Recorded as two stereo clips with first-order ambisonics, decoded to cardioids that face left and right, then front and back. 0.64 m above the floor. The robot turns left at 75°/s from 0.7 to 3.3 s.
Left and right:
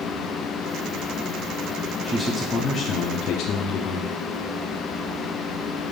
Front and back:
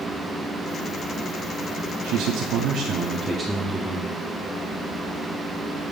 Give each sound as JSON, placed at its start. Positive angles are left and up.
{"t": 2.0, "sound": "a man speaking", "azimuth_deg": -160, "distance_m": 0.8}